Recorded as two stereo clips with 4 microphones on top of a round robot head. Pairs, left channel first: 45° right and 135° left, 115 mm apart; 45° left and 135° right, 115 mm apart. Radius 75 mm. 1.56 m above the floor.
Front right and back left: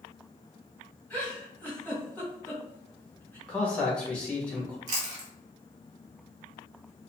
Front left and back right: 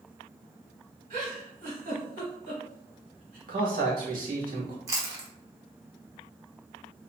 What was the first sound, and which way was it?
A giggle, 120° right.